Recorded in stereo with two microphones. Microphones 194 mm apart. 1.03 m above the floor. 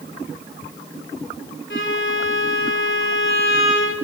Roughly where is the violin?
Left.